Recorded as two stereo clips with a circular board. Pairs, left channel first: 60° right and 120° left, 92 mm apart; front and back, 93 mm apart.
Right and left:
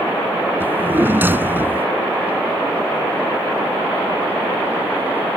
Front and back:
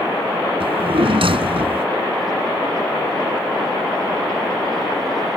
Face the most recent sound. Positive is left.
turn(degrees=-170)